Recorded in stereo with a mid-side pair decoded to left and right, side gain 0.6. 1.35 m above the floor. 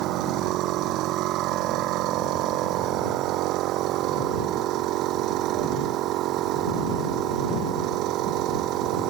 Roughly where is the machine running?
Ahead right.